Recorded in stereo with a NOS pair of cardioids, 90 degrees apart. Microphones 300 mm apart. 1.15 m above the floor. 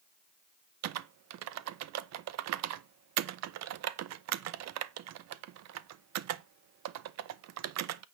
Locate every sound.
0.8 s typing on a keyboard: 65° right, 0.6 m